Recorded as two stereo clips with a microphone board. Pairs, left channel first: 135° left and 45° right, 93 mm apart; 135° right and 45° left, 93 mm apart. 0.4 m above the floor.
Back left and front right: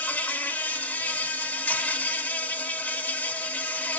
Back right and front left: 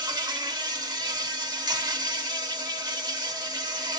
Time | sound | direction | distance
0.0 | an insect | 70° left | 0.8 m